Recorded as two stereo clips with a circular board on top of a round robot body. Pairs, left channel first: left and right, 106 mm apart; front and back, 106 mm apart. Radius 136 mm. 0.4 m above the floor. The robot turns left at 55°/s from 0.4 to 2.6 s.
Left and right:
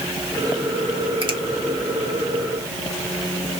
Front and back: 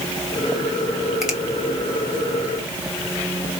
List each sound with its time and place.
1.2 s a finger snap: 95° right, 1.8 m; by 1.4 s 105° right, 1.8 m